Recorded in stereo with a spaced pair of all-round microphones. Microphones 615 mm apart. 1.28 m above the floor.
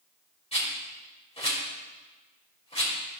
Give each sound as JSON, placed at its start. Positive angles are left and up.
{"t": 0.5, "sound": "a rattle", "side_deg": 10, "distance_m": 4.0}